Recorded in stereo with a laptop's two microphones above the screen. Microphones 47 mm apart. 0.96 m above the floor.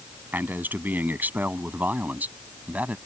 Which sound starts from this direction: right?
A man speaking, at 0.3 s.